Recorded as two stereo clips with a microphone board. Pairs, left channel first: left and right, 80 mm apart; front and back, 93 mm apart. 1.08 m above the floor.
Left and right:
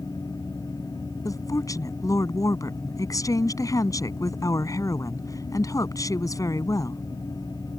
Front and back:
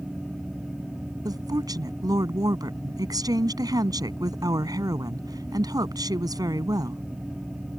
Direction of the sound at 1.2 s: 135° left.